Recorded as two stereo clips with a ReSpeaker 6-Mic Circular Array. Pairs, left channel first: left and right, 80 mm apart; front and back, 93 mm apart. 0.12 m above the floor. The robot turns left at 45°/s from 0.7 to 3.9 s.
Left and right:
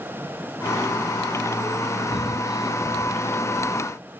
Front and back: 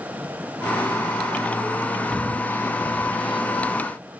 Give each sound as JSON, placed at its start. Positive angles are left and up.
{"t": 2.1, "sound": "breathing", "azimuth_deg": 80}